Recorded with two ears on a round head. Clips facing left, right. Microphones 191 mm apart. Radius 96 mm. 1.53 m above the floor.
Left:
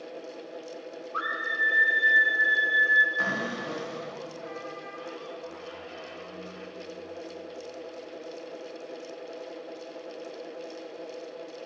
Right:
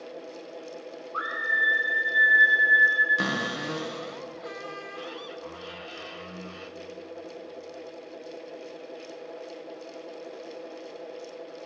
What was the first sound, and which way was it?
A scream, 35° left (ahead or behind).